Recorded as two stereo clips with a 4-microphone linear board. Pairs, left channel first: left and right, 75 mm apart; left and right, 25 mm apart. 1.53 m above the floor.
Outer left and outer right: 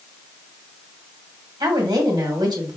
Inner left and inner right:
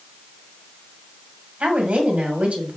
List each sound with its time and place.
1.6 s a woman speaking: 80° right, 2 m